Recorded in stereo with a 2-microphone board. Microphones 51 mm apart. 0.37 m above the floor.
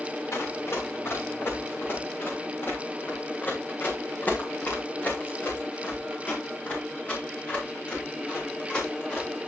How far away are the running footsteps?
About 4.5 m.